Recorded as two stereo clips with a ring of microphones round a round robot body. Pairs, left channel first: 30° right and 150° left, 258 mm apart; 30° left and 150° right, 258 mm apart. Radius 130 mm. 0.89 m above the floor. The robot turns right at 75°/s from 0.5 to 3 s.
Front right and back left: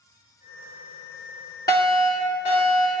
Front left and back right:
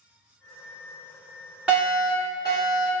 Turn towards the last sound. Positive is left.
turn(degrees=25)